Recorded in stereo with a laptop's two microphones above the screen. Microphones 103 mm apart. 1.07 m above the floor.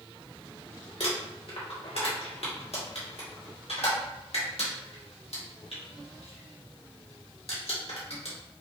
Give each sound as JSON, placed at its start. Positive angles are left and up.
{"t": 1.0, "sound": "crumpling", "side_deg": 75, "distance_m": 1.5}